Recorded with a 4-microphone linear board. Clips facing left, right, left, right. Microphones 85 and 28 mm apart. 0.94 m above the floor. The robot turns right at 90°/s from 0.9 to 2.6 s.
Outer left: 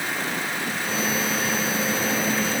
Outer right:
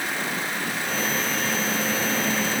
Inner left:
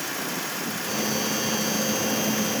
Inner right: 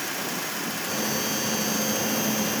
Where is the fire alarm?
I don't hear a fire alarm.